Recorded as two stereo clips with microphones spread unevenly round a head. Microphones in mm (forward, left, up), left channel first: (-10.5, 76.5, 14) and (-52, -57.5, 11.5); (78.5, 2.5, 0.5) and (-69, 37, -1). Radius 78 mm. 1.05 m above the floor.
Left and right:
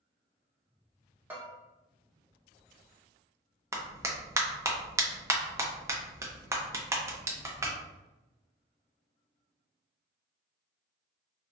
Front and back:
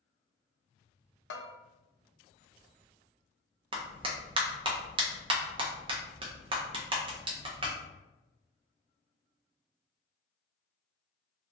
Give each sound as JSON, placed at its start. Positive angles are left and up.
{"t": 1.3, "sound": "a bell", "azimuth_deg": -30, "distance_m": 0.5}
{"t": 3.7, "sound": "a clap", "azimuth_deg": -165, "distance_m": 0.5}